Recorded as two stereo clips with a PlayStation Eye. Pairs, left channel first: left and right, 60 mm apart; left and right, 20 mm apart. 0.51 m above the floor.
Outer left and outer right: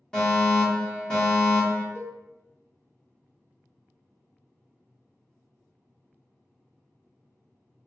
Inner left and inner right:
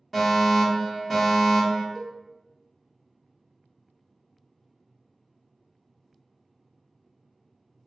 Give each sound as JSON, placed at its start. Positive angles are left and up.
{"t": 0.1, "sound": "a fire alarm", "side_deg": 15, "distance_m": 1.8}
{"t": 1.9, "sound": "a cowbell", "side_deg": 45, "distance_m": 0.6}